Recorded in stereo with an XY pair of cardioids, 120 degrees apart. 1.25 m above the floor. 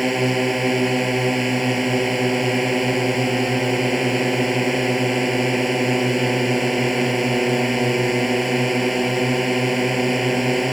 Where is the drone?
5° right.